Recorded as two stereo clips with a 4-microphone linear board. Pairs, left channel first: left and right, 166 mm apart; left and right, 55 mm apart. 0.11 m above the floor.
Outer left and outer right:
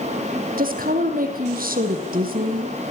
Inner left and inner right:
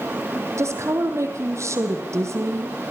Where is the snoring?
I don't hear snoring.